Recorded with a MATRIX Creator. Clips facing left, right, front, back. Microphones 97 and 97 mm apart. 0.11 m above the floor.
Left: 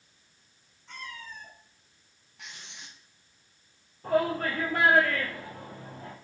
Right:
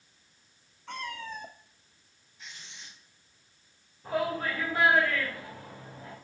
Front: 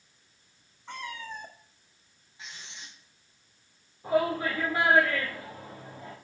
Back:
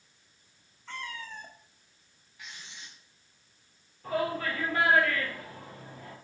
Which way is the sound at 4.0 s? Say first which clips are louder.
Left 4 dB, front 4 dB; 70° left.